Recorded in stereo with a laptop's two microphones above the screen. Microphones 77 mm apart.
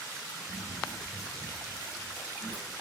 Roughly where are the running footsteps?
Left.